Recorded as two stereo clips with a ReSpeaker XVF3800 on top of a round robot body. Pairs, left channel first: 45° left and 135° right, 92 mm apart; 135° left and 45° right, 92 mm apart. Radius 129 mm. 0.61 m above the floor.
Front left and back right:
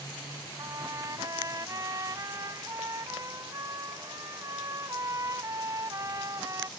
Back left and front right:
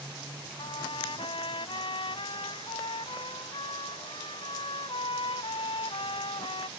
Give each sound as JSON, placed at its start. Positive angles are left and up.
{"t": 0.6, "sound": "a trumpet", "azimuth_deg": 170}